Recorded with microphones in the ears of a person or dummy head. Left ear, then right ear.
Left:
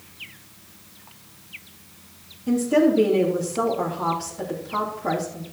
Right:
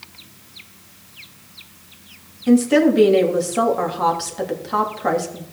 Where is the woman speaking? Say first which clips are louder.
Right 4 dB; 55° right (ahead or behind), 3 m.